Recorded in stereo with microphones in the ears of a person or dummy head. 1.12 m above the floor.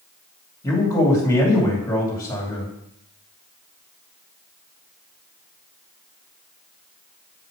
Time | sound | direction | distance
0.6 | a man speaking | 10° left (ahead or behind) | 2.5 m